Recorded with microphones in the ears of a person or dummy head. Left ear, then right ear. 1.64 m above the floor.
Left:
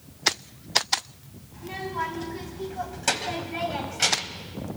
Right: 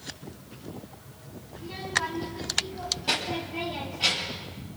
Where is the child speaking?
50° left (ahead or behind), 6.5 m; by 4.5 s 65° left (ahead or behind), 5 m.